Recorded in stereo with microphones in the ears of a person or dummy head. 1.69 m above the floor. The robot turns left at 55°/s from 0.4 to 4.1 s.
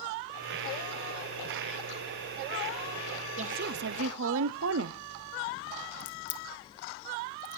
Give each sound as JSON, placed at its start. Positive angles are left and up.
{"t": 3.4, "sound": "a woman speaking", "azimuth_deg": -45, "distance_m": 0.8}
{"t": 6.0, "sound": "a crack", "side_deg": 40, "distance_m": 1.3}